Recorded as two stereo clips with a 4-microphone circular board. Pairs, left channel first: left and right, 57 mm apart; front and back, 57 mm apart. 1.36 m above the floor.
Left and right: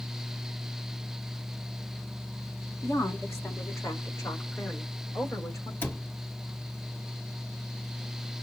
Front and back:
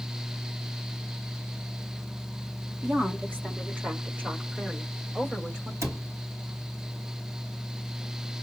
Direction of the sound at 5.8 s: 145° left.